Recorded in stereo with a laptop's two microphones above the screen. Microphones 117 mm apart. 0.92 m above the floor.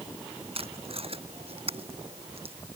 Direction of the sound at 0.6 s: 55° right (ahead or behind).